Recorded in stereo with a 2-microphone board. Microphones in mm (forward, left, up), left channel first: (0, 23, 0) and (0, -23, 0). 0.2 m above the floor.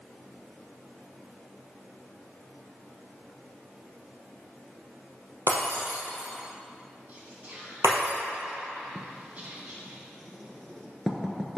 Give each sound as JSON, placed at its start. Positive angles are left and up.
{"t": 5.5, "sound": "breaking glass", "side_deg": -80, "distance_m": 2.0}
{"t": 7.1, "sound": "whispering", "side_deg": -35, "distance_m": 1.6}
{"t": 8.9, "sound": "writing", "side_deg": 0, "distance_m": 0.8}